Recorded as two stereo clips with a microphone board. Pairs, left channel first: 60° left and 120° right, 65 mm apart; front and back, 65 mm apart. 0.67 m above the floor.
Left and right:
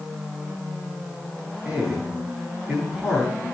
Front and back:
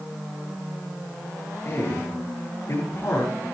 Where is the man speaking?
45° right, 8.5 m.